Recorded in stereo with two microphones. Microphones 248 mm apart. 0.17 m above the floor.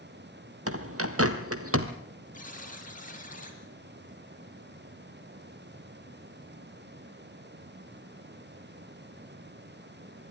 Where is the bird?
65° right (ahead or behind), 1.4 m.